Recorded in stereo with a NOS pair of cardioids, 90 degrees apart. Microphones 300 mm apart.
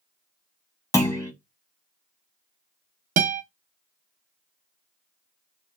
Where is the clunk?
10° left, 0.7 m.